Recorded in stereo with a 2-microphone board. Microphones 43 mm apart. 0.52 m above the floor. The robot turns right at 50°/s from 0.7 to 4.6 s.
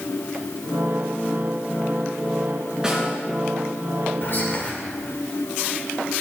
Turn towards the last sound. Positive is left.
turn(degrees=35)  # may be behind; listen again after turning